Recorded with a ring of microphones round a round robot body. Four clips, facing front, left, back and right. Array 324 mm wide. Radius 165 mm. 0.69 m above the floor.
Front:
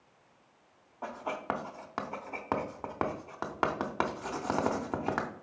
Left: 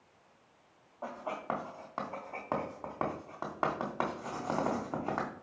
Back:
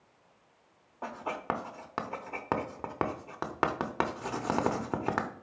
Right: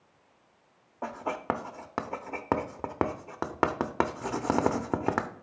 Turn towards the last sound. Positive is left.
turn(degrees=-100)